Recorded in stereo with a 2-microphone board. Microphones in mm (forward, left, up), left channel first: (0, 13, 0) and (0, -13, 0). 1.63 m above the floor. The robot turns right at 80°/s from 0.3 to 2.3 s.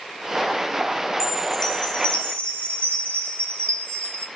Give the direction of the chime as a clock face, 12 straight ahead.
1 o'clock.